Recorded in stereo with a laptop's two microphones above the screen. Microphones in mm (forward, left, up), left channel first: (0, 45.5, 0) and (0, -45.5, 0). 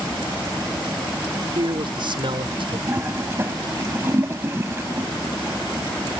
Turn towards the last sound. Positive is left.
turn(degrees=-25)  # may be behind; listen again after turning